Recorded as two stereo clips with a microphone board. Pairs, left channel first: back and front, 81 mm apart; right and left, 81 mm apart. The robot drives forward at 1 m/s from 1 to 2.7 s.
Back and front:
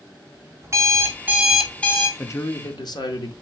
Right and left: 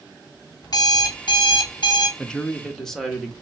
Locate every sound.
0.6 s an alarm clock: 55° right, 1.0 m; by 2.1 s 125° right, 0.9 m
2.2 s a man speaking: 160° right, 0.5 m; by 3.3 s 175° right, 0.9 m